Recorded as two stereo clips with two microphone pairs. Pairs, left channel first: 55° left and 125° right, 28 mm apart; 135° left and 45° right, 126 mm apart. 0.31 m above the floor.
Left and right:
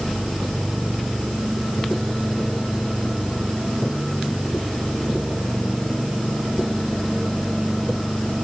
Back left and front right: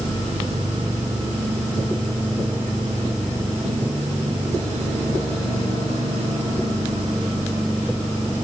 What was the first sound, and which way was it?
Only background noise.